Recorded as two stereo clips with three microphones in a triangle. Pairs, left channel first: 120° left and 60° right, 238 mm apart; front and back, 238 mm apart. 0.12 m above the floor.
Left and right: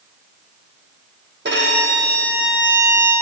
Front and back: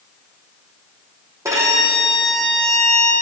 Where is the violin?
105° right, 3 m.